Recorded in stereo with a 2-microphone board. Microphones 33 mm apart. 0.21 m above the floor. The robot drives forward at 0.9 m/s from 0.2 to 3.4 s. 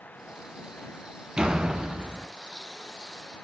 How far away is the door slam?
About 1.5 m.